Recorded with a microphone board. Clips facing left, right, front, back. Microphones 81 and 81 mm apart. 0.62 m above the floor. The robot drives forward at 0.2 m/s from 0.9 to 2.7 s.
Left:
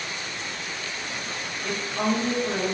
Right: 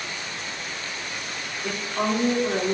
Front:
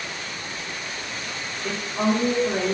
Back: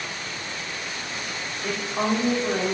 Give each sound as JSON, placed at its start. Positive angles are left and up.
{"t": 1.6, "sound": "a woman speaking", "azimuth_deg": -145, "distance_m": 0.7}